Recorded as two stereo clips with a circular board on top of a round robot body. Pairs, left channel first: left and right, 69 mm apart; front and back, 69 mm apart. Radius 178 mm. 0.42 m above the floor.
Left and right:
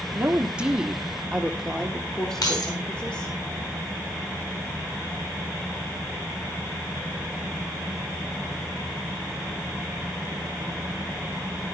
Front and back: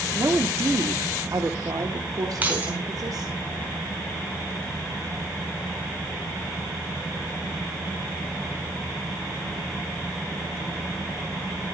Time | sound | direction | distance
0.1 | a woman speaking | 150° right | 1.8 m
2.4 | keys jangling | 115° left | 4 m